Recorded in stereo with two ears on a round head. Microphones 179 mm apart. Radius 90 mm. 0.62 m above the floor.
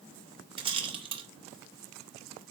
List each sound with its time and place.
0.6 s a rattle: 30° right (ahead or behind), 2 m